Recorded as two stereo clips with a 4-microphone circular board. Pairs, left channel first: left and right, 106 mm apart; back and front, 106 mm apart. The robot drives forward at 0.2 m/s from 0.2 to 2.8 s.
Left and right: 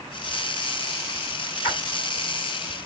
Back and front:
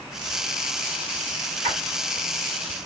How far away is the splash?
About 3 m.